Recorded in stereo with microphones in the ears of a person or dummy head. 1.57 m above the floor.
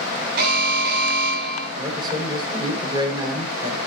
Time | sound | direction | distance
0.4 | an alarm | 70° right (ahead or behind) | 9.5 m
1.8 | a man speaking | 30° right (ahead or behind) | 6 m